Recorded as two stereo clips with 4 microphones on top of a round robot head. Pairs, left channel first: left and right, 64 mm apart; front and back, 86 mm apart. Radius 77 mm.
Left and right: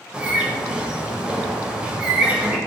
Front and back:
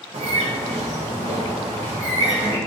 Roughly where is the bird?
Behind.